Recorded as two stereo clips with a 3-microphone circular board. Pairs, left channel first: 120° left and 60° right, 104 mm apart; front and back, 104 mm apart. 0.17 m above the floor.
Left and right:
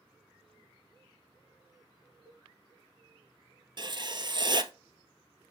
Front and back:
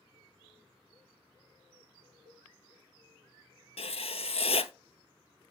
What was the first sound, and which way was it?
A cowbell, straight behind.